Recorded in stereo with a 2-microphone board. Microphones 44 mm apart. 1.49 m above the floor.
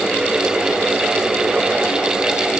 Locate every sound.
Only background noise.